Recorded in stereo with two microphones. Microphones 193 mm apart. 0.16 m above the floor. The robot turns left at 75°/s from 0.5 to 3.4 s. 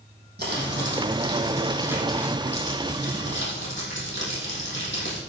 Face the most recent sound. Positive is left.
turn(degrees=80)